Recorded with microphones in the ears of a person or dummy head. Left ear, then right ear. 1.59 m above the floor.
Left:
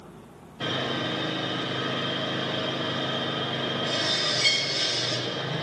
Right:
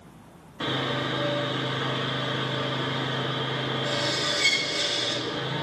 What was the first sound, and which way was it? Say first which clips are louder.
Sawing: right 1 dB; 55° right (ahead or behind).